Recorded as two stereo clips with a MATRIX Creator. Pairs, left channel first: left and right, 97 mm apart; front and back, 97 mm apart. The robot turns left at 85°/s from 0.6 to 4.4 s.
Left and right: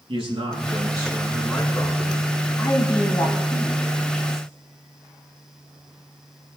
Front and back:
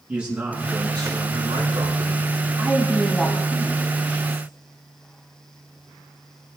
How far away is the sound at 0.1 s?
About 5.5 m.